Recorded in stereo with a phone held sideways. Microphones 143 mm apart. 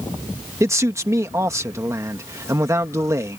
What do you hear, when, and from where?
0.6 s a man speaking: 20° right (ahead or behind)